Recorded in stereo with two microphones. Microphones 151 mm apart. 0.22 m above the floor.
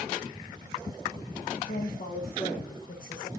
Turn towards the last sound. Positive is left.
turn(degrees=55)  # may be behind; listen again after turning